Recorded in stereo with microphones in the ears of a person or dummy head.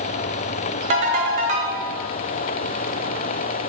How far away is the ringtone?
About 1.2 m.